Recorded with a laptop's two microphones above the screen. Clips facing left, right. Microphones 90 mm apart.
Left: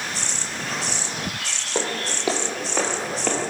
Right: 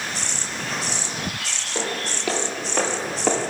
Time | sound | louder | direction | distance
1.8 | footsteps | left 1 dB | 30° left (ahead or behind) | 1.4 m